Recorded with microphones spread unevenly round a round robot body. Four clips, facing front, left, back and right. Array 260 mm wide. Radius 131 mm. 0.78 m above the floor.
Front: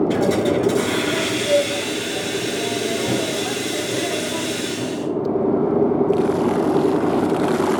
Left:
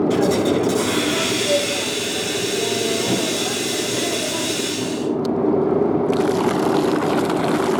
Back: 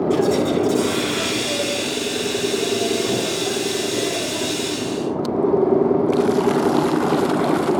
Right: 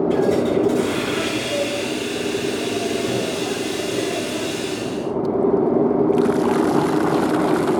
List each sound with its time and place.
0.1 s a hiss: 30° left, 5 m